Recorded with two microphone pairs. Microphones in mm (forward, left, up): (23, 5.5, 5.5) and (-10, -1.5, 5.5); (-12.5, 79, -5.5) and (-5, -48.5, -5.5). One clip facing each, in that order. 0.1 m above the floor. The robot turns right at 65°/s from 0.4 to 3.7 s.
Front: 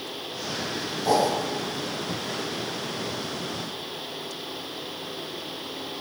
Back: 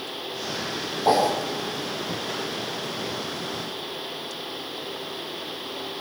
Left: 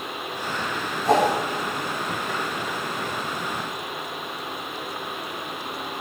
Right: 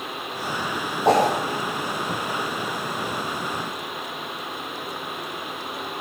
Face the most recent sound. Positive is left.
turn(degrees=60)